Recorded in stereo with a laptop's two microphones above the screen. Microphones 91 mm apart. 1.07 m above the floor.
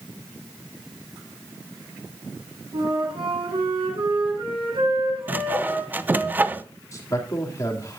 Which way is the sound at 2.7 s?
90° right.